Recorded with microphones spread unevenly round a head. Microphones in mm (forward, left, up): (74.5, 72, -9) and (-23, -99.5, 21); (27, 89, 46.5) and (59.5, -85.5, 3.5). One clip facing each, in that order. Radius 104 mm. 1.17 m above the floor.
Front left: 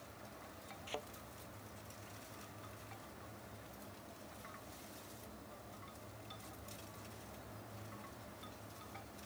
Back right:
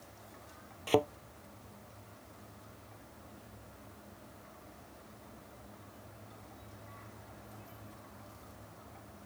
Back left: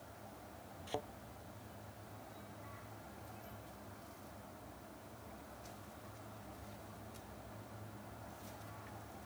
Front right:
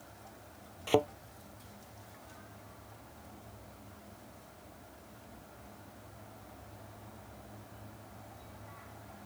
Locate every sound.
0.9 s a thud: 110° right